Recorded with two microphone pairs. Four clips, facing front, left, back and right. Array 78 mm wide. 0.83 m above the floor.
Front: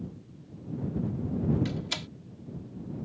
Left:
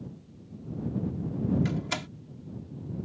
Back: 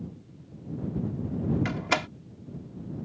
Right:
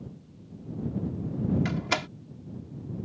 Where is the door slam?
160° right.